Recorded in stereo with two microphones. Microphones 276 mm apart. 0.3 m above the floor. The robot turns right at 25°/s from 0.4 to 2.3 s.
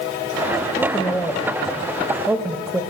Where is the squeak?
No squeak in this recording.